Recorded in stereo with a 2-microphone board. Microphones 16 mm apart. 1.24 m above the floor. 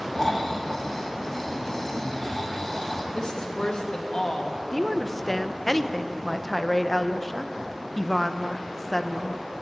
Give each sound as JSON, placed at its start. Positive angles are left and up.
{"t": 0.1, "sound": "snoring", "side_deg": 30, "distance_m": 2.5}
{"t": 3.1, "sound": "a woman speaking", "side_deg": 55, "distance_m": 2.5}
{"t": 4.7, "sound": "a woman speaking", "side_deg": 10, "distance_m": 0.8}